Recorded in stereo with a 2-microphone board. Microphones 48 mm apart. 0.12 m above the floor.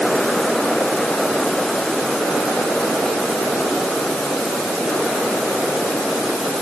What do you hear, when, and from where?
Only background noise.